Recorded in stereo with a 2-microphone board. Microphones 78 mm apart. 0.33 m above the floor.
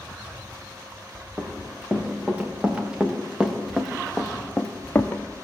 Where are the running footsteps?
25° right (ahead or behind), 3 m; by 5.2 s 30° left (ahead or behind), 1.1 m.